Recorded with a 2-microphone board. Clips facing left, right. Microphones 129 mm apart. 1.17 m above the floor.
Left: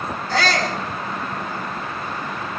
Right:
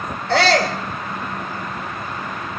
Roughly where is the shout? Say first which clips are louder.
Right 5 dB; right.